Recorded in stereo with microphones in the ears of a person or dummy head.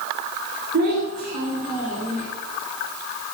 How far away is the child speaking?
About 3 m.